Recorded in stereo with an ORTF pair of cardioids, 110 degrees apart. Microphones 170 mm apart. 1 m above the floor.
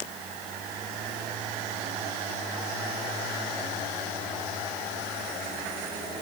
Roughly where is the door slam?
I don't hear a door slam.